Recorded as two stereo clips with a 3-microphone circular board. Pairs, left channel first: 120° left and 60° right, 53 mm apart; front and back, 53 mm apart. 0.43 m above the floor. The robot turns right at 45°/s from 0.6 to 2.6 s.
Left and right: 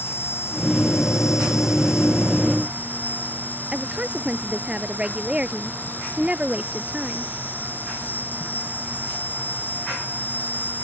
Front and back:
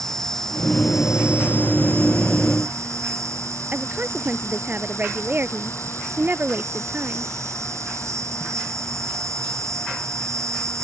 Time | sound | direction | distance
0.0 | an insect | 80° left | ?
3.7 | a woman speaking | 130° right | ?